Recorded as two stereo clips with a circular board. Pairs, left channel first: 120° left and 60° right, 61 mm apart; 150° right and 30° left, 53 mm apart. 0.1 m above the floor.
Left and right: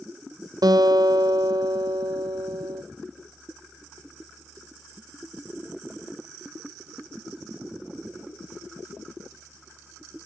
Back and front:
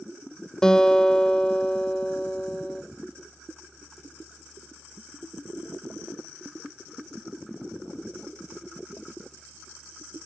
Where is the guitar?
75° right, 0.7 m.